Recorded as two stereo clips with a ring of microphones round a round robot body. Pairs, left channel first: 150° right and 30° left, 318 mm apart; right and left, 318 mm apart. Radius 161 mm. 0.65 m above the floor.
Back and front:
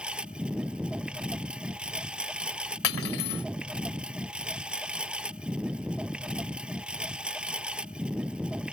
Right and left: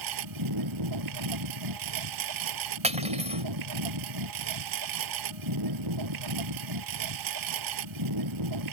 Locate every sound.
0.0 s a lawn mower: 115° left
2.8 s cutlery clinking: 160° left